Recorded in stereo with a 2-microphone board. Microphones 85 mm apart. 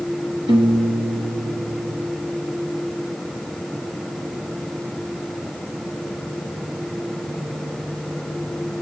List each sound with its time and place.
0.5 s a piano: 80° right, 2 m